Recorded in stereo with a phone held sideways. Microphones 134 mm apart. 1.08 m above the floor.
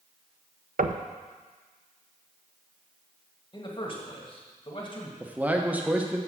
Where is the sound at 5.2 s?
10° right (ahead or behind), 1.0 m.